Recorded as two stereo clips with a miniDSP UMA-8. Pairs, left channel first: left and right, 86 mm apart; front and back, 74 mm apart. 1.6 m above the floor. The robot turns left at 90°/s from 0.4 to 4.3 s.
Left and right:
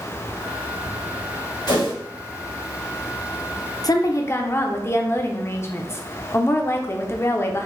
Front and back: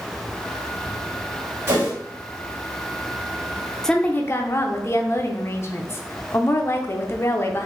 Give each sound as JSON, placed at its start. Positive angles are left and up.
{"t": 1.7, "sound": "a whoosh", "azimuth_deg": 125, "distance_m": 2.5}
{"t": 3.8, "sound": "a woman speaking", "azimuth_deg": 85, "distance_m": 0.7}